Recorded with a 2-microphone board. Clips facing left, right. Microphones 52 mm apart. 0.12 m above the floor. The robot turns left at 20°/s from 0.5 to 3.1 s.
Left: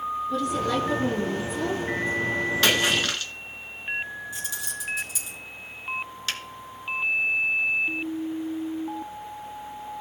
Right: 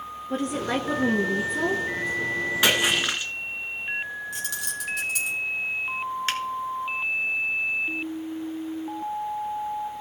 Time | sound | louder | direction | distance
0.3 | a woman speaking | right 1 dB | 45° right (ahead or behind) | 1.5 m
2.6 | a splash | right 1 dB | 15° right (ahead or behind) | 1.4 m
4.3 | keys jangling | right 2 dB | 65° right (ahead or behind) | 2 m
6.3 | a finger snap | right 3 dB | 35° right (ahead or behind) | 1.7 m